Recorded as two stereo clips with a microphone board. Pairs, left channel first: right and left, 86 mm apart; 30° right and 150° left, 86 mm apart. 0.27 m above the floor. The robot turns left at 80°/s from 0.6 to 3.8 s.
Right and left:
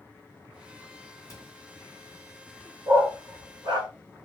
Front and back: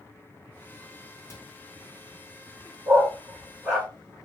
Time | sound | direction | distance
1.3 | a cupboard door | 60° right | 2 m
2.9 | a dog barking | 125° left | 2 m